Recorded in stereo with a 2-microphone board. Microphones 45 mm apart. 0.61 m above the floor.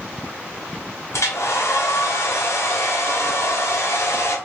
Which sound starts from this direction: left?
A hair dryer, at 1.1 s.